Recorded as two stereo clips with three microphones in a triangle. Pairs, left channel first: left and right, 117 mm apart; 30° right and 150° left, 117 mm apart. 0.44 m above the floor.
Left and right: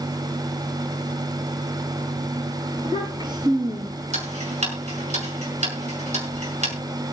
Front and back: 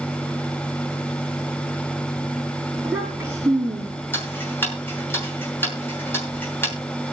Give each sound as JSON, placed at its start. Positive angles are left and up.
{"t": 2.7, "sound": "a child speaking", "azimuth_deg": -135, "distance_m": 5.5}
{"t": 4.1, "sound": "ticking", "azimuth_deg": -100, "distance_m": 6.0}